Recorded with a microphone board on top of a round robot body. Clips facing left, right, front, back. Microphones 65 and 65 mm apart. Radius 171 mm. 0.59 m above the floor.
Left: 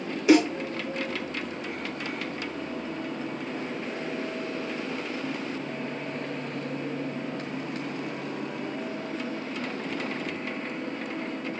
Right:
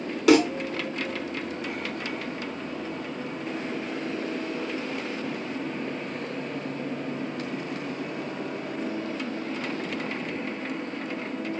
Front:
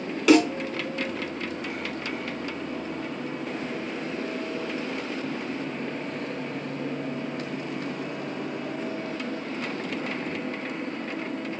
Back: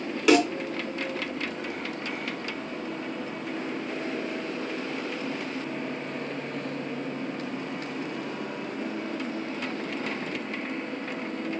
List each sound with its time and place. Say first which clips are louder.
0.3 s a snare drum: right 1 dB, front 2 dB; 95° right, 3 m